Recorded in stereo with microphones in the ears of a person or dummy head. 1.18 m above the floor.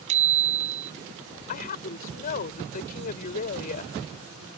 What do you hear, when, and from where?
0.1 s a bicycle bell: 40° right (ahead or behind)
1.5 s a woman speaking: 45° left (ahead or behind)